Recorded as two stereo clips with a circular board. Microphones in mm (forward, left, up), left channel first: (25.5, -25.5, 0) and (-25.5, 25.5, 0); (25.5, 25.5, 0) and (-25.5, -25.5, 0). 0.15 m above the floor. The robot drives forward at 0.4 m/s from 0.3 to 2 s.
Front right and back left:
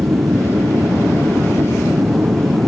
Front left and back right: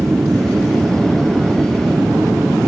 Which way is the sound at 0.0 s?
175° left.